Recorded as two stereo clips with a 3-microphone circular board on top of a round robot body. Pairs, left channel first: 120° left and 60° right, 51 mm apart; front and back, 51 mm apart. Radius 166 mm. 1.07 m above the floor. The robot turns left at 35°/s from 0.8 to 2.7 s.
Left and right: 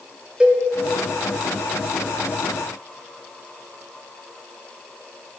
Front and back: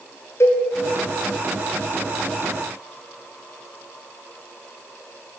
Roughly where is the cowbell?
Ahead.